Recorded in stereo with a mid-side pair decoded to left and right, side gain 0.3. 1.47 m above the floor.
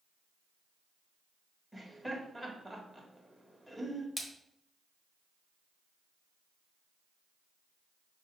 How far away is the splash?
About 1.3 m.